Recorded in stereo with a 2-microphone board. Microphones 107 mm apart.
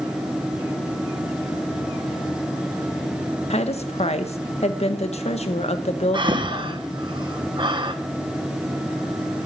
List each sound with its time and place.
3.5 s a woman speaking: 75° left (ahead or behind), 1.1 m
6.1 s breathing: 45° right (ahead or behind), 1.0 m